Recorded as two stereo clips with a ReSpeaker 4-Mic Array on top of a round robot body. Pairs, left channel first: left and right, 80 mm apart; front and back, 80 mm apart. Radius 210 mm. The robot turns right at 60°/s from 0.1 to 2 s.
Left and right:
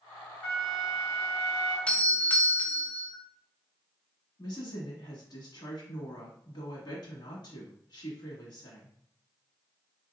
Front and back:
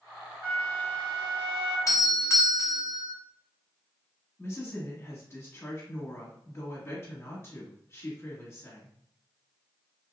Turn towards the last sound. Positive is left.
turn(degrees=60)